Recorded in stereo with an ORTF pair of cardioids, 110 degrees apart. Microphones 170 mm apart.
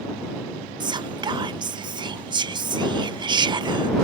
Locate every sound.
0.8 s whispering: 25° right